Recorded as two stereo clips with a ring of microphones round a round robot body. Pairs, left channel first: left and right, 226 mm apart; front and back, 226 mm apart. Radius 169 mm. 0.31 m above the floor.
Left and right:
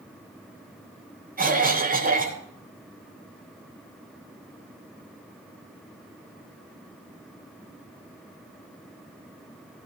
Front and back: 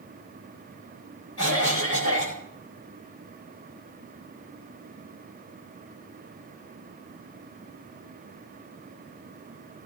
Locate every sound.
1.4 s a cough: 40° right, 8.5 m